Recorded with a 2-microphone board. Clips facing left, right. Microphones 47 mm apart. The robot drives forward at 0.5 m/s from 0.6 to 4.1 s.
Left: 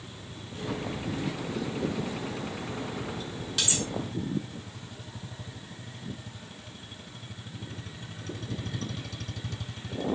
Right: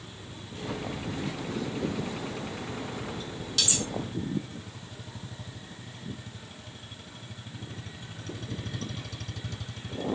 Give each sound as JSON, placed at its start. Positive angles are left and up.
{"t": 3.6, "sound": "cutlery clinking", "side_deg": 15, "distance_m": 1.6}